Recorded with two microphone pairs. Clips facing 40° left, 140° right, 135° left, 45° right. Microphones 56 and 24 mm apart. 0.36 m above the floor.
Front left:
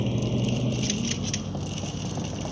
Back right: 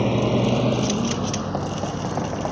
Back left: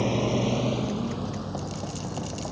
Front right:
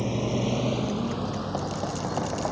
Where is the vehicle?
155° right; by 2.5 s 100° right.